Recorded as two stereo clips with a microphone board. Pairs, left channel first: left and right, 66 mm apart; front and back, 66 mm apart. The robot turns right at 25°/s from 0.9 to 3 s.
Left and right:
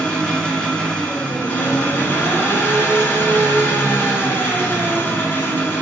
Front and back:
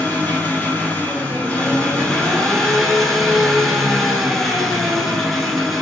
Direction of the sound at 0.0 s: 30° left.